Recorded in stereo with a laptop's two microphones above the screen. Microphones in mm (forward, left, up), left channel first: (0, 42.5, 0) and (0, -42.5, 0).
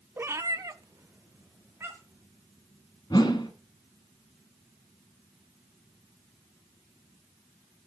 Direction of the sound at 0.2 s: 25° right (ahead or behind).